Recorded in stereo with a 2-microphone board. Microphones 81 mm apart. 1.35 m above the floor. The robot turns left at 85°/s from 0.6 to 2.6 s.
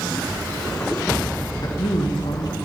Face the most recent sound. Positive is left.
turn(degrees=40)